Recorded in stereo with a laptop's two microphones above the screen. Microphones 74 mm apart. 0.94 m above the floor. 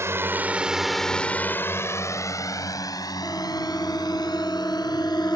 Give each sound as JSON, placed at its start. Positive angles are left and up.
{"t": 0.0, "sound": "a drone", "side_deg": -40}
{"t": 3.2, "sound": "a siren", "side_deg": 35}